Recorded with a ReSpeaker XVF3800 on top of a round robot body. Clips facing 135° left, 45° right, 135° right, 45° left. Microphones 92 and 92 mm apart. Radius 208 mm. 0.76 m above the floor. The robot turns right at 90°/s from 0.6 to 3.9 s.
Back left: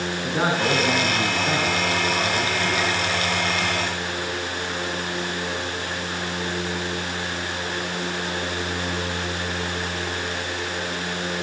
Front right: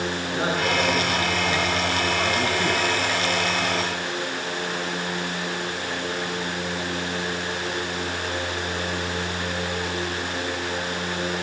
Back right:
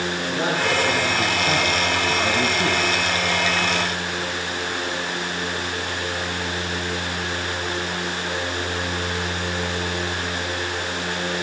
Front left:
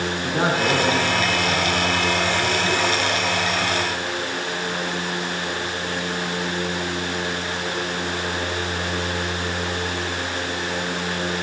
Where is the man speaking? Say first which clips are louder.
Back left 4 dB, front left 3 dB; 80° left, 9 m; by 3.2 s 50° right, 9 m.